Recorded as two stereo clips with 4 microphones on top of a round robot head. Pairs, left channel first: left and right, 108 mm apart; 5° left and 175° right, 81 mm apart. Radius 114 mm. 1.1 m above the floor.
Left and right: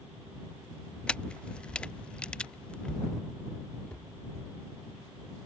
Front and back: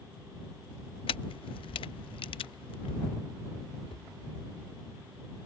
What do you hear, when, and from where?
1.1 s a camera shutter: 10° left
3.9 s a cupboard door: 10° left